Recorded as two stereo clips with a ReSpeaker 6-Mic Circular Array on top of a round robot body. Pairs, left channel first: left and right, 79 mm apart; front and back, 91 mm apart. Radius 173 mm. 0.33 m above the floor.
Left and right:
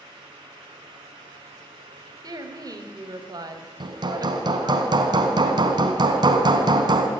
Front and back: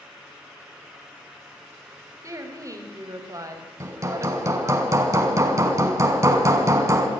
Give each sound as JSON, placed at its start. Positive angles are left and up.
{"t": 2.2, "sound": "a woman speaking", "azimuth_deg": -125, "distance_m": 3.0}
{"t": 3.8, "sound": "hammering", "azimuth_deg": -120, "distance_m": 2.0}